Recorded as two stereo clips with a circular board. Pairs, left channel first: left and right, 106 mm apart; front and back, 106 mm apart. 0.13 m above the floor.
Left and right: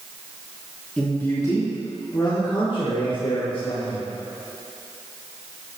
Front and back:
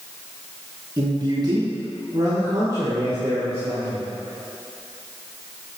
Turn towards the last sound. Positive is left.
turn(degrees=120)